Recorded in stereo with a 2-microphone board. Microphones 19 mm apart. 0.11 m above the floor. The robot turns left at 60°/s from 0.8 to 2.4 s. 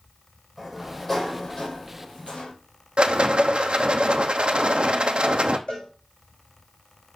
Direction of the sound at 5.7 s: 65° left (ahead or behind).